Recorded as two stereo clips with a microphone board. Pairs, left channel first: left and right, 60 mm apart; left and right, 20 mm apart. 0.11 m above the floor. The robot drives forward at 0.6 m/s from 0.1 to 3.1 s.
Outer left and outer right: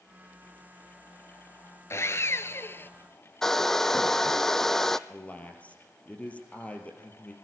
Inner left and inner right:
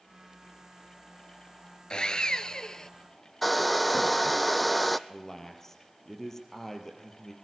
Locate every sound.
1.9 s sawing: 50° left (ahead or behind), 0.8 m; by 2.9 s 40° left (ahead or behind), 1.0 m
3.4 s a hair dryer: 5° left (ahead or behind), 0.8 m
5.1 s a man speaking: 20° left (ahead or behind), 3.5 m